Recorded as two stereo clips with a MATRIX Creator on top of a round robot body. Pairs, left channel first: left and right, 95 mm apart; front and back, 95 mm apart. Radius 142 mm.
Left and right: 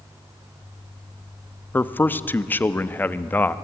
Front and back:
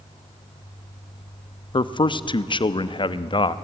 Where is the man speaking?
20° left, 0.9 m.